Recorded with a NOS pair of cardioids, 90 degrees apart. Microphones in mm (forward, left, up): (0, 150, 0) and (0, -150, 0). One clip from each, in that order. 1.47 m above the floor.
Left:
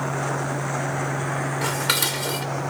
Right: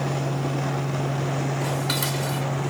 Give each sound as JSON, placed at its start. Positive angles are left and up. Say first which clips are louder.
{"t": 0.0, "sound": "a fan", "louder": "left 2 dB", "azimuth_deg": -40}
{"t": 1.6, "sound": "dishes clattering", "louder": "left 6 dB", "azimuth_deg": 50}